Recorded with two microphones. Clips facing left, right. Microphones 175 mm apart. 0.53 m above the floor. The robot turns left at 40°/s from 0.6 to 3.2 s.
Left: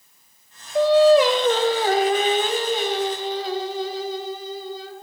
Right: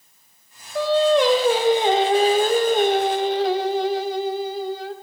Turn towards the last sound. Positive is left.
turn(degrees=-80)